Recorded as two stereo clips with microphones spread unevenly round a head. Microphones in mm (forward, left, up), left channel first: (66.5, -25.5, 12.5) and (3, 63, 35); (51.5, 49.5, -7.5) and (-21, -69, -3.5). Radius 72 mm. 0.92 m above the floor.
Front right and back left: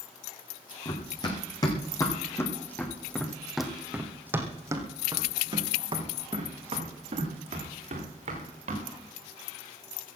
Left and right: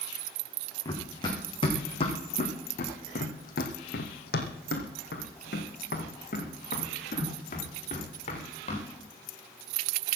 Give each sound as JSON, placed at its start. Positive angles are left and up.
{"t": 0.8, "sound": "running footsteps", "azimuth_deg": -5, "distance_m": 3.5}